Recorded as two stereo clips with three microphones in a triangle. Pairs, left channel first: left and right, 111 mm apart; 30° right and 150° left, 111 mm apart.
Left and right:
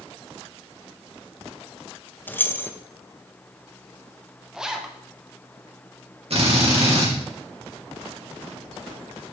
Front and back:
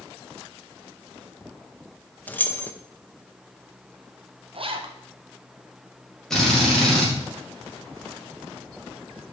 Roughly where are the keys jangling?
Ahead left.